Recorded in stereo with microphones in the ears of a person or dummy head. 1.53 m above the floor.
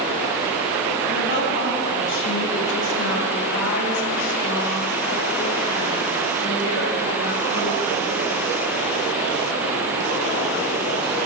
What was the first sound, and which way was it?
A woman speaking, 65° left (ahead or behind).